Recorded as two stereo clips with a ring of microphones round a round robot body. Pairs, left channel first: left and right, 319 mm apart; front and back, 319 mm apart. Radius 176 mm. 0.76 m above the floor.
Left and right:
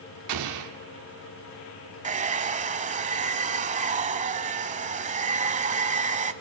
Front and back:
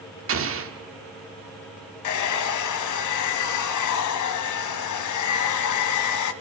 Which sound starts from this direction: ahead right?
A hair dryer, at 2.0 s.